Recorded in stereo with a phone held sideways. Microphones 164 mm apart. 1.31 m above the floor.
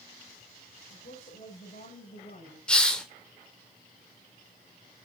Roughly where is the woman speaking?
Left.